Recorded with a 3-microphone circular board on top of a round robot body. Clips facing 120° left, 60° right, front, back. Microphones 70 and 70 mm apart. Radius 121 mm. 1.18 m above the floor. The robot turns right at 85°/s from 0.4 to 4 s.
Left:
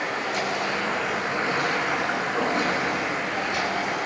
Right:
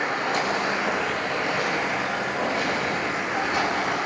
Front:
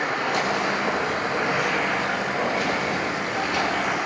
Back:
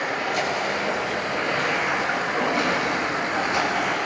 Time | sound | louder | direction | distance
0.0 | running water | right 2 dB, front 1 dB | 25° right | 8.5 m